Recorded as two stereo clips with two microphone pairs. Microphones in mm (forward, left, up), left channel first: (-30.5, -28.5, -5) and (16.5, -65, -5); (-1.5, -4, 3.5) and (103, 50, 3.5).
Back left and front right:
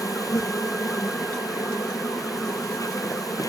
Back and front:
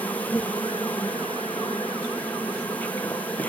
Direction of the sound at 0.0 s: 125° left.